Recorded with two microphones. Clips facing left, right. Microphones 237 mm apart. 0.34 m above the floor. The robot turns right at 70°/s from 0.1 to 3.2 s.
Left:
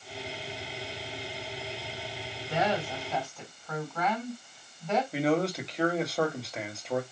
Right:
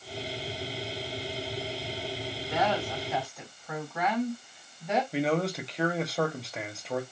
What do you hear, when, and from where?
2.5 s a woman speaking: 145° left, 3 m; by 5.0 s 165° right, 3 m
5.1 s a man speaking: centre (ahead or behind), 1.8 m